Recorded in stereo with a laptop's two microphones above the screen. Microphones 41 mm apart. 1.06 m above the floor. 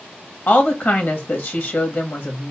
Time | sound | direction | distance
0.5 | a woman speaking | 50° left (ahead or behind) | 1.3 m